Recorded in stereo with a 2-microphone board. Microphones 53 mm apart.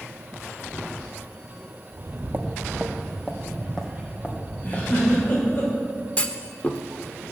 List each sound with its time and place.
1.9 s footsteps: 50° right (ahead or behind), 1.5 m; by 5.6 s 30° left (ahead or behind), 4.5 m
4.6 s a giggle: 35° left (ahead or behind), 4 m
6.2 s a clunk: 25° left (ahead or behind), 0.9 m